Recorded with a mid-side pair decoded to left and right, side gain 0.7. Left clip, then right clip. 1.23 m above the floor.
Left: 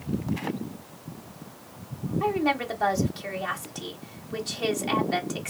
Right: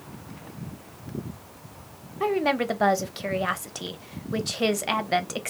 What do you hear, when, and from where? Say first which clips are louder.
2.2 s a woman speaking: right 2 dB; 30° right, 0.9 m